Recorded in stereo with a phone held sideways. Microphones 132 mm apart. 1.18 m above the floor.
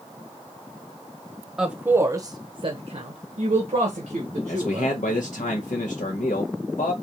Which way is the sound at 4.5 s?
80° left.